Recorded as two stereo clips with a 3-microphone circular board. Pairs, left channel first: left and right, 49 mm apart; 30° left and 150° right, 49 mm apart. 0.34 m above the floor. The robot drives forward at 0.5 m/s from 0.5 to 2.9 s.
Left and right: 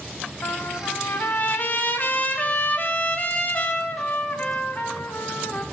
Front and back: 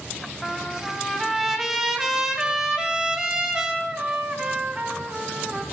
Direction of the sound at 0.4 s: 110° left.